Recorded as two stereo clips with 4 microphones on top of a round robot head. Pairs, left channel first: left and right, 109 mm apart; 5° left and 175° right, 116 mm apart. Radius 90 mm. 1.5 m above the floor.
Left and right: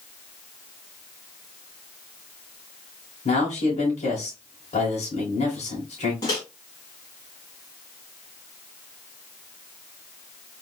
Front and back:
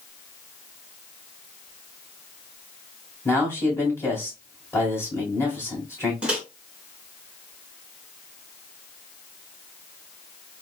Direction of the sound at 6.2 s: 115° left.